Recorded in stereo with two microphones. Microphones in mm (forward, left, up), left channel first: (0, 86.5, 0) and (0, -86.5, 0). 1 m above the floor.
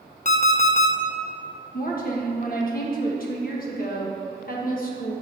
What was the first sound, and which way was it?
An alarm clock, 45° left (ahead or behind).